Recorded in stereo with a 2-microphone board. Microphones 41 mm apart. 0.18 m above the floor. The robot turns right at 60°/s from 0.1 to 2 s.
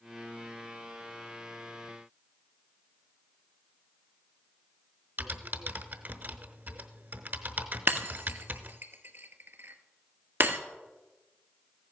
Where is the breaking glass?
60° right (ahead or behind), 1.3 m.